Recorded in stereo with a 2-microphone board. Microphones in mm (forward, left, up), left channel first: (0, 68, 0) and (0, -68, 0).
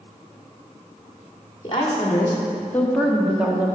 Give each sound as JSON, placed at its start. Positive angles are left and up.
{"t": 1.6, "sound": "a woman speaking", "side_deg": 40, "distance_m": 2.0}